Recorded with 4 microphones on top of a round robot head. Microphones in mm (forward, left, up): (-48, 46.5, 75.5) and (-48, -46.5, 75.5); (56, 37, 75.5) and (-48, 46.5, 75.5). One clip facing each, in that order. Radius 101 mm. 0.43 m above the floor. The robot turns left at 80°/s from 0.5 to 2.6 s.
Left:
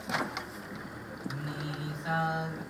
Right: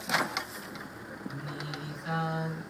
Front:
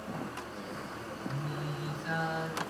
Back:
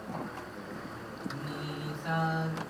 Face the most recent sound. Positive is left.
turn(degrees=105)